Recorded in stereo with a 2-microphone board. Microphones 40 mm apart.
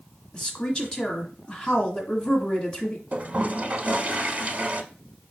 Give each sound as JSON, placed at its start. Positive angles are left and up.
{"t": 0.3, "sound": "a woman speaking", "side_deg": 25, "distance_m": 1.2}
{"t": 3.1, "sound": "a toilet flushing", "side_deg": -40, "distance_m": 0.7}